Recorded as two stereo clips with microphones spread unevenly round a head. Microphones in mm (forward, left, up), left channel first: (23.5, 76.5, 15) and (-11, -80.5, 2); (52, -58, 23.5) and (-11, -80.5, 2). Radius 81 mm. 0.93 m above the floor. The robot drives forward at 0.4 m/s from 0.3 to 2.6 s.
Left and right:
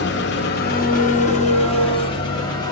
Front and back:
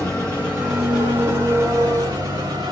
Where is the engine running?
105° left, 0.8 m; by 2.7 s 145° left, 1.3 m.